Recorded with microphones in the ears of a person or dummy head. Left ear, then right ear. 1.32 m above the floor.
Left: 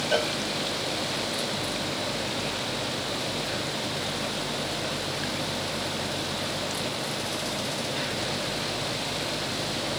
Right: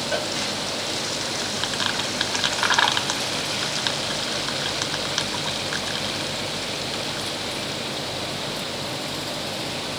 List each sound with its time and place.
0.1 s a cowbell: 5° left (ahead or behind)